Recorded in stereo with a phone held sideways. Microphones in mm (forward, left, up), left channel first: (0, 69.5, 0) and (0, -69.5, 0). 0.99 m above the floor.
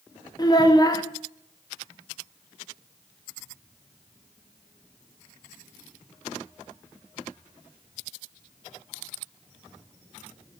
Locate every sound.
0.4 s a child speaking: 25° left (ahead or behind), 0.8 m